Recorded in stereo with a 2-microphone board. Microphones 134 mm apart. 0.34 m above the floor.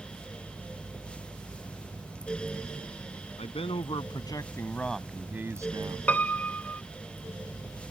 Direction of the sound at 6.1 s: 10° left (ahead or behind).